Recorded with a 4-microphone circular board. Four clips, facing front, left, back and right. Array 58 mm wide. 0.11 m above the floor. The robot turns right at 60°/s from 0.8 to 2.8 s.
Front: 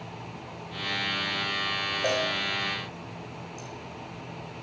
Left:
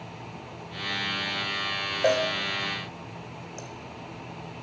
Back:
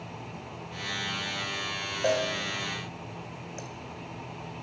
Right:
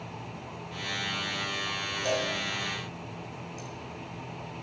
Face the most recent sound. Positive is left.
turn(degrees=140)